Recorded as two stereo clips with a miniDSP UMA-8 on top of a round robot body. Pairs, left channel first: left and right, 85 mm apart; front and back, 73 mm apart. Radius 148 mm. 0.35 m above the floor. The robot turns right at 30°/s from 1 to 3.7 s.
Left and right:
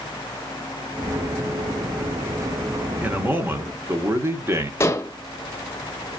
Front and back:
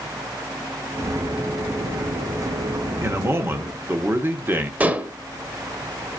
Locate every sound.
3.0 s a man speaking: 155° right, 1.1 m; by 4.7 s 135° right, 1.1 m
4.8 s dishes clattering: 125° left, 0.9 m